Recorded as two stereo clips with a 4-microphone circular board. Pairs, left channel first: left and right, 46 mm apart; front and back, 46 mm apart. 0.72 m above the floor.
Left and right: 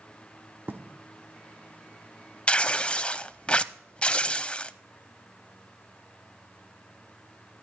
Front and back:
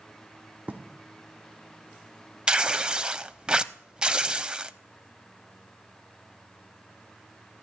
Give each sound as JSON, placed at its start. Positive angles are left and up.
{"t": 0.7, "sound": "writing", "azimuth_deg": -130, "distance_m": 1.2}
{"t": 2.5, "sound": "tearing paper", "azimuth_deg": 125, "distance_m": 0.6}